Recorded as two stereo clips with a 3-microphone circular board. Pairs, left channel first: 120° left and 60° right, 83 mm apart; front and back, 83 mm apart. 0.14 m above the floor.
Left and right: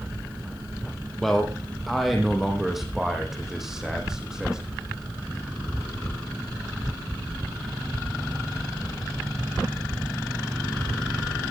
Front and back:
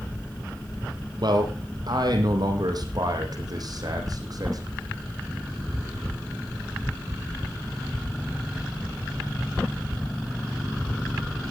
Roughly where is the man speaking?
Behind right.